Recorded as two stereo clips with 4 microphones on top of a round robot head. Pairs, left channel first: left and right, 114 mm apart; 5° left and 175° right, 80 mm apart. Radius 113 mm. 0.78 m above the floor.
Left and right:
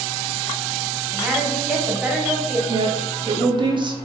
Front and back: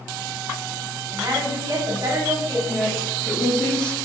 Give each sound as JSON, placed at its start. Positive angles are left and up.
{"t": 1.1, "sound": "a woman speaking", "azimuth_deg": -165, "distance_m": 1.2}
{"t": 2.7, "sound": "a woman speaking", "azimuth_deg": -70, "distance_m": 0.8}